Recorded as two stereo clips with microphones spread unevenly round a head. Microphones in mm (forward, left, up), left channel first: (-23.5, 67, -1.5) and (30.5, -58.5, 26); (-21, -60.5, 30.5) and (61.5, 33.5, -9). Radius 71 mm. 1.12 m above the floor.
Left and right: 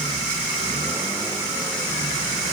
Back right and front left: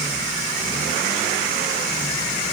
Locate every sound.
Only background noise.